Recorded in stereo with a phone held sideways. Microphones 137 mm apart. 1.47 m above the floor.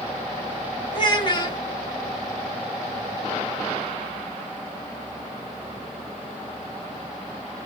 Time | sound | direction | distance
0.9 | a child speaking | 35° left (ahead or behind) | 1.3 m